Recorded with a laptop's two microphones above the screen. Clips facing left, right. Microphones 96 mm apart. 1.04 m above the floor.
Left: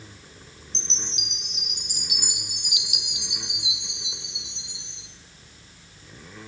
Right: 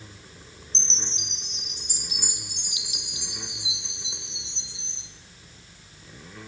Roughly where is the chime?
Right.